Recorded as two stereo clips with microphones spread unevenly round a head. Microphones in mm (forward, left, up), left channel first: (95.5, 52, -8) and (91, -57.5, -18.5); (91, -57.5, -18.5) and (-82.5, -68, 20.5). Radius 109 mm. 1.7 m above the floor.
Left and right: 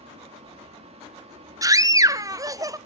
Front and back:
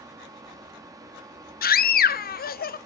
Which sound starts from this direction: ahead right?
A scream, at 1.6 s.